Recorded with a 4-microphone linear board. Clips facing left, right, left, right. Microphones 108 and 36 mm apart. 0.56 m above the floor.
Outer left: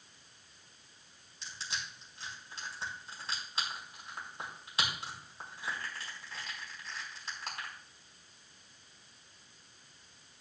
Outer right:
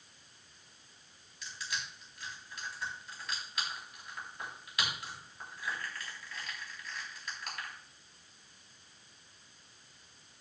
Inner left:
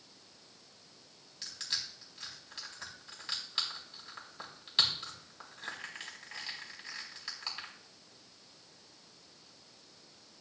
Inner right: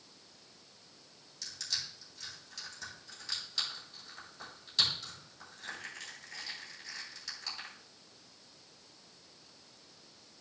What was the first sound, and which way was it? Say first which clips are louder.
Crushing: outer right 1 dB, inner left 1 dB; 30° left (ahead or behind).